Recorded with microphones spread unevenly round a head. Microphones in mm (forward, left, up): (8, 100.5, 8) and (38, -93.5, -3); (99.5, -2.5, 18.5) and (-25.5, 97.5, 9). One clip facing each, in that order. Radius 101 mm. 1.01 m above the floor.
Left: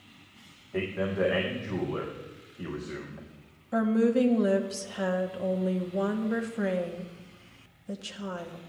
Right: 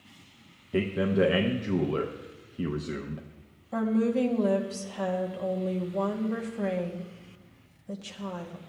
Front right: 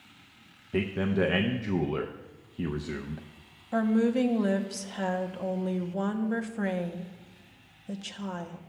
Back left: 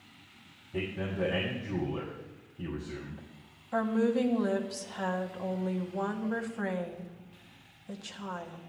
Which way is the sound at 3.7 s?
20° left.